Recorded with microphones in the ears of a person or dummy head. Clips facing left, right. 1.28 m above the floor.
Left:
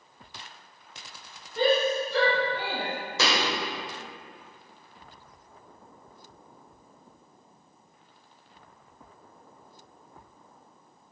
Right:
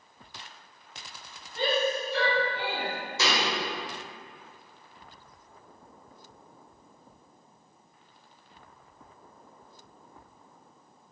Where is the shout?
85° left, 2 m.